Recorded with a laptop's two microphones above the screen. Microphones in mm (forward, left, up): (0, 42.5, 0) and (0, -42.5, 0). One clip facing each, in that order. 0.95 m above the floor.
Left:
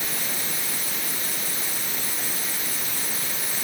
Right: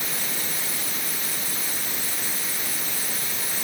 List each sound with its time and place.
Only background noise.